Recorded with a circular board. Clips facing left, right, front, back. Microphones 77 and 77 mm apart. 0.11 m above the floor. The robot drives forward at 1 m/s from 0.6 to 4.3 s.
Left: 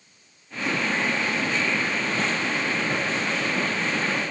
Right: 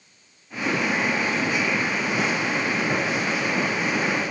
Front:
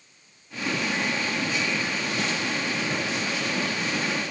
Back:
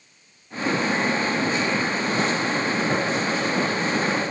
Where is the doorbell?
No doorbell in this recording.